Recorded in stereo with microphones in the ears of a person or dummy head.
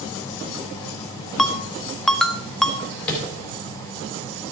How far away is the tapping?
About 4 m.